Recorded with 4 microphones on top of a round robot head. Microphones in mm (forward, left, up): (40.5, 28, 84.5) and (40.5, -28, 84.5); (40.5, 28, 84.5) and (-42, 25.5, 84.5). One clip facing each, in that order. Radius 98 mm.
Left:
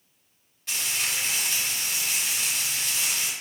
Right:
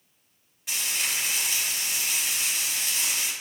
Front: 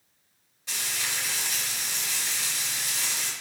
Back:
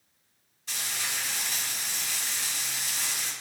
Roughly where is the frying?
Ahead.